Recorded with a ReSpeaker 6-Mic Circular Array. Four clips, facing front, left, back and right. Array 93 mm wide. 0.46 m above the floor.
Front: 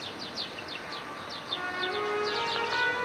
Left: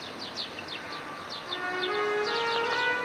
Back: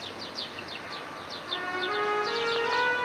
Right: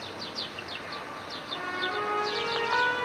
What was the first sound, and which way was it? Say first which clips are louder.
A trumpet: left 2 dB, back 2 dB; 135° left.